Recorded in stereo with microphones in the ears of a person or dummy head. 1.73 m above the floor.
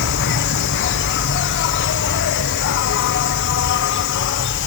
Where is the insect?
60° left (ahead or behind).